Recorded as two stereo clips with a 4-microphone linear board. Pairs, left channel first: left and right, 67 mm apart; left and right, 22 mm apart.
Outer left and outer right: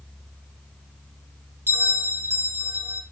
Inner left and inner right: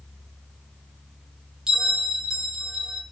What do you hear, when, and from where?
1.7 s a bell: 40° right (ahead or behind), 1.0 m